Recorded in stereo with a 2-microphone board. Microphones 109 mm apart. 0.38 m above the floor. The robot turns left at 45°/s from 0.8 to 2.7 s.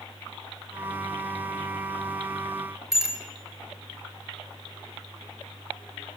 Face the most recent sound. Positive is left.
turn(degrees=-5)  # may be behind; listen again after turning